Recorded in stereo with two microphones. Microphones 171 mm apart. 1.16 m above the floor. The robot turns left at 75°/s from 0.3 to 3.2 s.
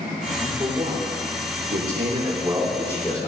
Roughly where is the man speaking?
Centre.